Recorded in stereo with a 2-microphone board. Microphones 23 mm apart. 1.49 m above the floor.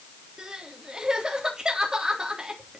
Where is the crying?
35° right (ahead or behind), 3.5 m.